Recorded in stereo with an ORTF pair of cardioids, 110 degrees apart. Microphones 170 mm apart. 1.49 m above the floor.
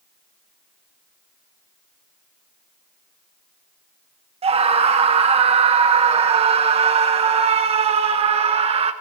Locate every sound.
4.4 s a scream: 35° right, 1.5 m